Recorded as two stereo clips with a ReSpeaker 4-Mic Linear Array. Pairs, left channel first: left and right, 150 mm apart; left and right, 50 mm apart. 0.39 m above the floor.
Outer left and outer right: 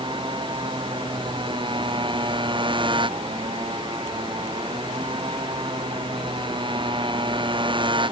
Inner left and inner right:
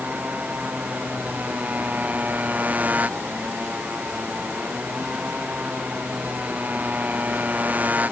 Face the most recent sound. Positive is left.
turn(degrees=-35)  # may be behind; listen again after turning